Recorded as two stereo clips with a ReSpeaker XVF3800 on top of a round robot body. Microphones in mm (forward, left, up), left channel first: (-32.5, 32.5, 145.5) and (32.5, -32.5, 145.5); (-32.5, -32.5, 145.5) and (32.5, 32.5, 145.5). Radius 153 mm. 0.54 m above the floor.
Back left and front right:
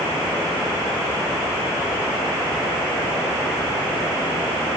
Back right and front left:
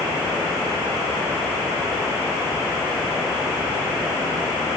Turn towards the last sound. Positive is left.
No sound to turn to.